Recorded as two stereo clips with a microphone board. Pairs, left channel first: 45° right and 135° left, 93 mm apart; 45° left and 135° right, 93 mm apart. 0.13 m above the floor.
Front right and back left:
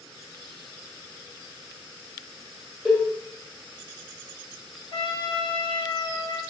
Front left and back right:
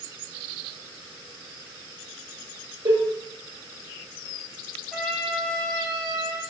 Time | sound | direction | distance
2.9 | a cowbell | 140° right | 1.1 m
4.9 | a trumpet | 40° right | 0.8 m